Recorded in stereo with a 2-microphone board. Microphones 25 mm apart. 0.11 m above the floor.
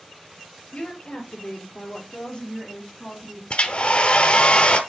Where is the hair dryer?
55° left (ahead or behind), 0.8 m.